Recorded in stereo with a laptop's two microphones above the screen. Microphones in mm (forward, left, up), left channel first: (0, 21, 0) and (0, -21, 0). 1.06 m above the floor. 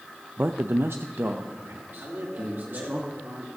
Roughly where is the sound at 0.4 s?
Right.